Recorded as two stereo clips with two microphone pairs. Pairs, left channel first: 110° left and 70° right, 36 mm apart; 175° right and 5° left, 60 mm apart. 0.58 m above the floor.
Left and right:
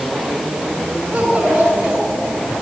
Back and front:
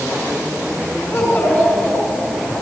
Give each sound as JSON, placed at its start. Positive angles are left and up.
{"t": 1.1, "sound": "a child speaking", "azimuth_deg": -125, "distance_m": 6.0}